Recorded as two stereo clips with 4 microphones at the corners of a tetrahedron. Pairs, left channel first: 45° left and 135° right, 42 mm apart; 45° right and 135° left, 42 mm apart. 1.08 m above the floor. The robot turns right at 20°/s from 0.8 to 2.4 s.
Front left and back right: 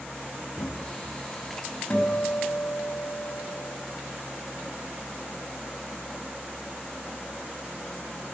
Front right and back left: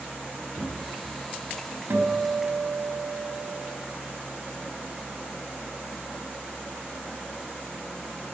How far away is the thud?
About 3.5 m.